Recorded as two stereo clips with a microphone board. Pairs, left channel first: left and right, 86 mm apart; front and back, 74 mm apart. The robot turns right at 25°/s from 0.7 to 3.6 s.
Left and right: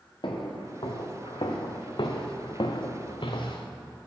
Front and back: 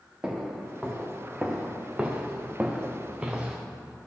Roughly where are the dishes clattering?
I don't hear dishes clattering.